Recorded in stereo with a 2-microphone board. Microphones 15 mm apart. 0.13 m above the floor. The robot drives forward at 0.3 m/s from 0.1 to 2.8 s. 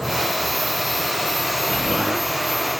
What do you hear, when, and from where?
1.7 s an explosion: 80° right, 2.5 m; by 2.3 s 75° right (ahead or behind), 3 m